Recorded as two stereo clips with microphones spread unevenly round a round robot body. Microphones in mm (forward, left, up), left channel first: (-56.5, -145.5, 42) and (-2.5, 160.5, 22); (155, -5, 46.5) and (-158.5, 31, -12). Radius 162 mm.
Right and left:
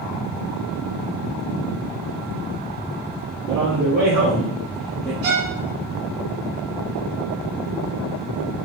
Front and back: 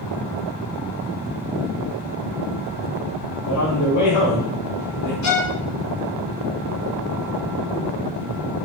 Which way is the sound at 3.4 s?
30° left.